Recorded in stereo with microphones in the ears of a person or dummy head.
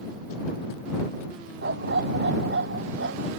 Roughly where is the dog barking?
Right.